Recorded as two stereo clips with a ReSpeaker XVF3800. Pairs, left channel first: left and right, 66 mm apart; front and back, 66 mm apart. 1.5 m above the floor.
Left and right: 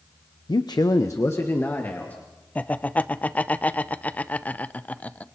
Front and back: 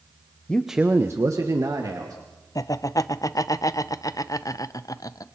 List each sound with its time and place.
0.5 s a man speaking: 70° left, 0.7 m; by 2.2 s 155° left, 2.5 m
2.5 s laughter: 25° left, 0.7 m